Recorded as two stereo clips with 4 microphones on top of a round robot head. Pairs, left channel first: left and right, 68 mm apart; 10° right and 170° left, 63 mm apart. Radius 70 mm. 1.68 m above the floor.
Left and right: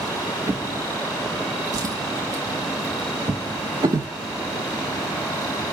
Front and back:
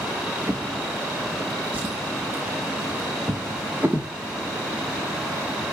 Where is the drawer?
120° right, 1.7 m.